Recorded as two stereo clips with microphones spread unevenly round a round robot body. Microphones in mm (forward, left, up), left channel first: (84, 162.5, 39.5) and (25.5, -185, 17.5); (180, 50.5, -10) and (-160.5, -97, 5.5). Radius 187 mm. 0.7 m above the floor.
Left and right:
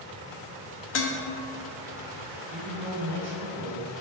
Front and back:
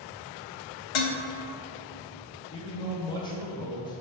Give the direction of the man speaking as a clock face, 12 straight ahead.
2 o'clock.